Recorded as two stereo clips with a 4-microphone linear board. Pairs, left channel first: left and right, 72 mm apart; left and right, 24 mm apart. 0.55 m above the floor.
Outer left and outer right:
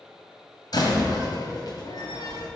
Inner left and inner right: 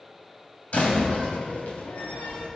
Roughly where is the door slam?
Left.